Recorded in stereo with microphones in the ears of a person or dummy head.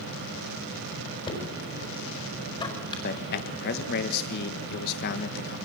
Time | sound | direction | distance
1.3 | knocking | 25° left (ahead or behind) | 4.5 m
3.0 | a man speaking | 60° left (ahead or behind) | 1.5 m